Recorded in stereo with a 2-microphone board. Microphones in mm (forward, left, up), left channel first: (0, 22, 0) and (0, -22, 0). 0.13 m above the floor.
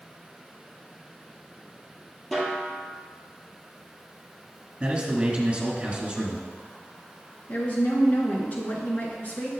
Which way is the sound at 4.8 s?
25° right (ahead or behind).